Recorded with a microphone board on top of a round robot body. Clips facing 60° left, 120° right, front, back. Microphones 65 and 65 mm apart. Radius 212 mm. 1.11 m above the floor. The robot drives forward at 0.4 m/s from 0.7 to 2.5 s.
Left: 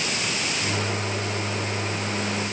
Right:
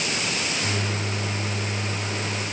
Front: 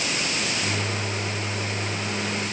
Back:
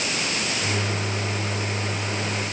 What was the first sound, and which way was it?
Only background noise.